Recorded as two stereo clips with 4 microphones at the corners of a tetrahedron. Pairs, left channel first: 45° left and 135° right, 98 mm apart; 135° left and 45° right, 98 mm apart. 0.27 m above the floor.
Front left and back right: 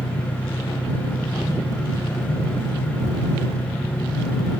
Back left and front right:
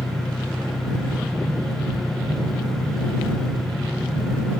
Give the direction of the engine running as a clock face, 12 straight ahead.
10 o'clock.